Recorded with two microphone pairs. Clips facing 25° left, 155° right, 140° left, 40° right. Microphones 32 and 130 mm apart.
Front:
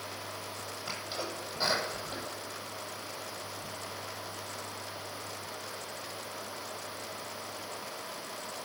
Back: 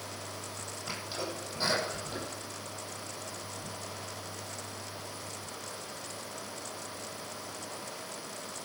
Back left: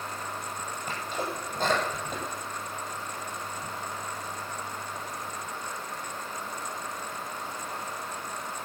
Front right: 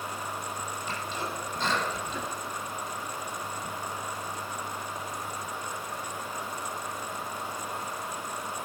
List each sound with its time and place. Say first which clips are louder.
0.9 s a sneeze: back 1 dB, back left 3 dB; 110° left, 9 m